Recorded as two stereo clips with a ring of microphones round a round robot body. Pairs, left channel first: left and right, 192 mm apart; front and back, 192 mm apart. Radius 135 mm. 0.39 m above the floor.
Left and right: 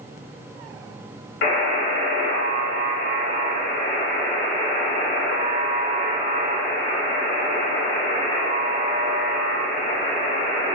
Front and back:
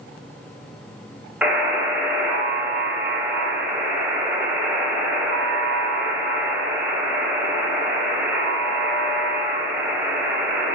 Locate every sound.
1.4 s a buzzer: 100° left, 0.6 m